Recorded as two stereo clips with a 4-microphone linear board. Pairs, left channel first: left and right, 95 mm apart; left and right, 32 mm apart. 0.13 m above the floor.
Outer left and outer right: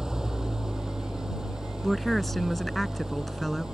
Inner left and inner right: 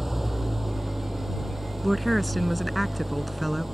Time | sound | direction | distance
0.0 | an engine running | 5° right (ahead or behind) | ?
1.8 | a woman speaking | centre (ahead or behind) | ?